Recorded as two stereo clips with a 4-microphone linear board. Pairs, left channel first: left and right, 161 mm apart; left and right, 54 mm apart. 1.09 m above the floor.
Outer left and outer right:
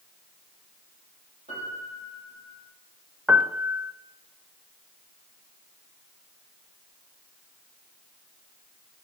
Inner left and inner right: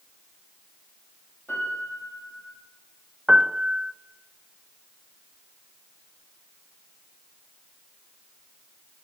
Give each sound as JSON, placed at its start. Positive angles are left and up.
{"t": 1.5, "sound": "a piano", "side_deg": 45, "distance_m": 7.5}
{"t": 3.3, "sound": "a piano", "side_deg": -5, "distance_m": 0.5}